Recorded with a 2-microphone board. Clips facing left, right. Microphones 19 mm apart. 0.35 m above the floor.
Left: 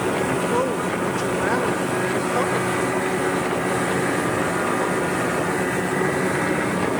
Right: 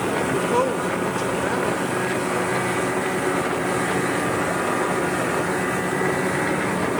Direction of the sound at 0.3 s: 20° right (ahead or behind).